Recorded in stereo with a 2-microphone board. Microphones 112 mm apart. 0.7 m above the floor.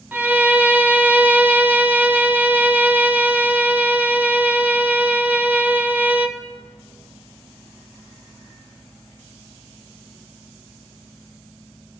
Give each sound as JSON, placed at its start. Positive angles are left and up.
{"t": 0.1, "sound": "a violin", "side_deg": -15, "distance_m": 0.7}